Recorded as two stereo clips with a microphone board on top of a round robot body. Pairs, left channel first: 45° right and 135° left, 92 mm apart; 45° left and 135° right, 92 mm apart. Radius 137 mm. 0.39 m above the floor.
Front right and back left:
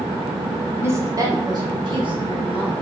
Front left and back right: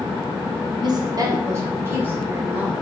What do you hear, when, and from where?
0.8 s a woman speaking: 165° right, 2.5 m; by 2.7 s 150° left, 4 m